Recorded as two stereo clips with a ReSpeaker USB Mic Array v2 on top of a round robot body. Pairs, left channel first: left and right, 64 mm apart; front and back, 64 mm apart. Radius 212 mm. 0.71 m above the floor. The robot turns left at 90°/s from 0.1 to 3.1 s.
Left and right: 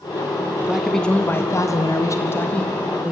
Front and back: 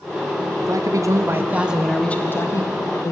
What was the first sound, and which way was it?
A man speaking, 155° right.